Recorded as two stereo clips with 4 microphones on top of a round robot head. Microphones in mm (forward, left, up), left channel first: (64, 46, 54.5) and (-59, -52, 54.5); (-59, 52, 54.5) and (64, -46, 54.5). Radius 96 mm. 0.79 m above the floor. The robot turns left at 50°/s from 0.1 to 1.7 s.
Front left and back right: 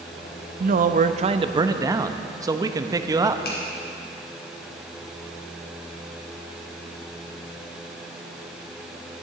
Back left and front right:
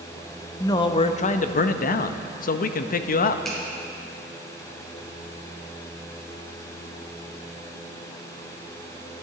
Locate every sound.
0.6 s a man speaking: 150° right, 0.6 m; by 3.4 s 155° left, 0.6 m
3.5 s a finger snap: 55° left, 2.5 m